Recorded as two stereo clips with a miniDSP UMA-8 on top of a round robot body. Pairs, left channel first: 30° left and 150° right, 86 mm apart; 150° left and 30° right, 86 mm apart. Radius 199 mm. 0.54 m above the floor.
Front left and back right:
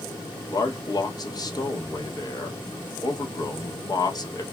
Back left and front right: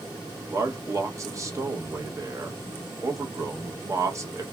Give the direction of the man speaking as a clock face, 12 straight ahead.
12 o'clock.